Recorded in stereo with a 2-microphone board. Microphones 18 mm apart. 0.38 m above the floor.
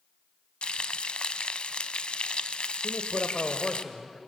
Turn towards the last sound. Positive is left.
turn(degrees=45)  # may be behind; listen again after turning